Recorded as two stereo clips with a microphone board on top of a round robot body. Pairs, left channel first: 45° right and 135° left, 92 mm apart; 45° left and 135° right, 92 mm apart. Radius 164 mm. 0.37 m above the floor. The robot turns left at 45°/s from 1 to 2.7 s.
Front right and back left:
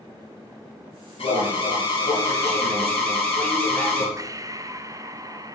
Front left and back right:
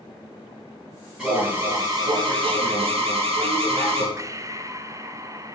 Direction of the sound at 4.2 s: Straight behind.